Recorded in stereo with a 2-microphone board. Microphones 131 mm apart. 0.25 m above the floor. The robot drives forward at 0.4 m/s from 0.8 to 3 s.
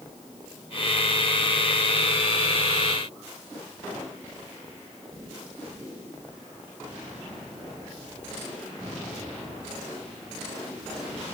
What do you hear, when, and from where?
Only background noise.